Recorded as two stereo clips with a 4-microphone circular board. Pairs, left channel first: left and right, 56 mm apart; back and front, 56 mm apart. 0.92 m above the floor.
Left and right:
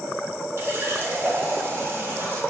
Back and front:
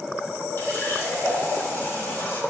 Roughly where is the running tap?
Behind right.